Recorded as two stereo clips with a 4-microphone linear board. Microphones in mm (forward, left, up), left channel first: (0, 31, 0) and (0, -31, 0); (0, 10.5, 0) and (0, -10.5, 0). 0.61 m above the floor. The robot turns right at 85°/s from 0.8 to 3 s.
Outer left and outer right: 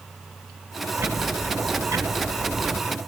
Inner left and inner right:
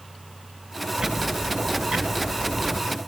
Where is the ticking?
140° right, 1.9 m; by 2.8 s 15° left, 1.9 m.